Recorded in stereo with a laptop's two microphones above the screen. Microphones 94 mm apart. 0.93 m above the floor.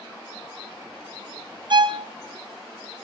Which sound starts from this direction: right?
A violin, at 1.7 s.